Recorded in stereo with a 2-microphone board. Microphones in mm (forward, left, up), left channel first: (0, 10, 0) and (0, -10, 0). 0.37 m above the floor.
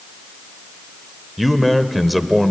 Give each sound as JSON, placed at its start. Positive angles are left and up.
{"t": 1.4, "sound": "a man speaking", "side_deg": 5, "distance_m": 1.2}